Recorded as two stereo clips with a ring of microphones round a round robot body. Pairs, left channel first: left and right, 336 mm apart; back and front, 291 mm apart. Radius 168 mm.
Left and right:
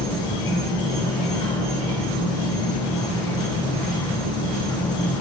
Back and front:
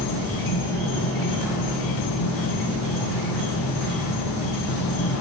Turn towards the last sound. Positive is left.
turn(degrees=170)